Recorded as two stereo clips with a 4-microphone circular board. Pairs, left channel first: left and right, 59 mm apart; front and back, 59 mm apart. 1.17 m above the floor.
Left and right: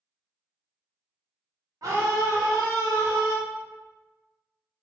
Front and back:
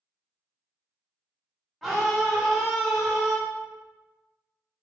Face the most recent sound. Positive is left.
turn(degrees=-90)